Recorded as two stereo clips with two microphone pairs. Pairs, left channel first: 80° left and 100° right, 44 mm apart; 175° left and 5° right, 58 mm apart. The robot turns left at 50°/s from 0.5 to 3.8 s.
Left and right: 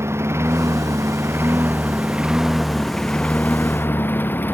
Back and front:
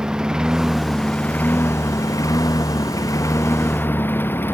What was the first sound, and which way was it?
A lawn mower, 85° right.